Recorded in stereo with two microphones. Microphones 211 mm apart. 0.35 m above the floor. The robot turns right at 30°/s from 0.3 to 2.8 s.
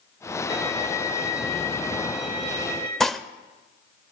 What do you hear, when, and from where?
0.5 s a violin: 30° right, 4 m; by 2.9 s 40° left, 4 m
3.0 s dishes clattering: centre (ahead or behind), 0.7 m